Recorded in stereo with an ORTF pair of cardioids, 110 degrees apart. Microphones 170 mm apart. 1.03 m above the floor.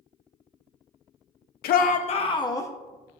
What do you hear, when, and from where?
1.6 s a shout: 70° left, 0.7 m; by 2.7 s 15° left, 1.1 m